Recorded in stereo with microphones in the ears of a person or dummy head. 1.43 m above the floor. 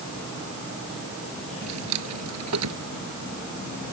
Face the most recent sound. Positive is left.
turn(degrees=-85)